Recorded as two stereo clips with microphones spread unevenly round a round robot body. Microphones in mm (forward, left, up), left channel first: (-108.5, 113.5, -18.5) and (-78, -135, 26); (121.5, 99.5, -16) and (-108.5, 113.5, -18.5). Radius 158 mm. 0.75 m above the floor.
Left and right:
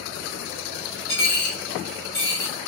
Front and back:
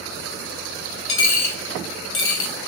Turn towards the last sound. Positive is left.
turn(degrees=30)